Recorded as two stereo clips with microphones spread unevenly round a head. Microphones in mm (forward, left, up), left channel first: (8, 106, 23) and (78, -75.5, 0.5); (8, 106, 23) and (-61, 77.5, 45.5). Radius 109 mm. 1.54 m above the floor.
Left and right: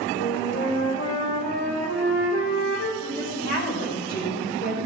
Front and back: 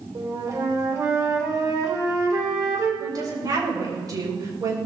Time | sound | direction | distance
0.1 | a flute | 160° left | 4 m
3.0 | a woman speaking | 165° left | 6 m